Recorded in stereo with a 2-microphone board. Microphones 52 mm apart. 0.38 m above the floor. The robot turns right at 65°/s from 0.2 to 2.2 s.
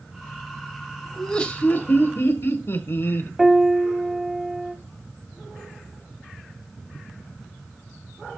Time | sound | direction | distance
1.2 | laughter | 10° left | 2.0 m
3.4 | a piano | 5° right (ahead or behind) | 1.7 m